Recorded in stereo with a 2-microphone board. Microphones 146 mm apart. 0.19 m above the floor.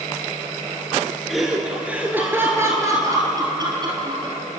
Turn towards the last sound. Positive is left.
turn(degrees=-35)  # may be behind; listen again after turning